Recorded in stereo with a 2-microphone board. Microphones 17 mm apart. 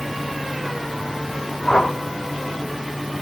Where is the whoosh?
65° left (ahead or behind), 3 m.